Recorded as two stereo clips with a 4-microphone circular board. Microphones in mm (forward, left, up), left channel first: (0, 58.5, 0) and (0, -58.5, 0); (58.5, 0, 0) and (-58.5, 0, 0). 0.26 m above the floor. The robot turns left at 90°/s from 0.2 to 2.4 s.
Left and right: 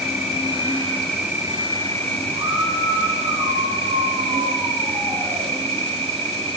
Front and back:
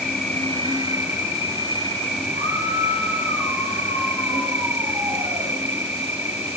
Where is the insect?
90° left, 3.5 m; by 6.6 s 105° right, 3.5 m.